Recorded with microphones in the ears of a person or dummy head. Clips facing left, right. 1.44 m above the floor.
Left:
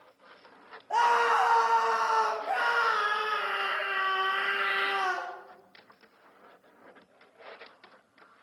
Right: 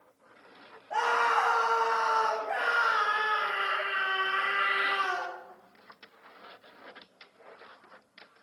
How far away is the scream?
About 1.8 m.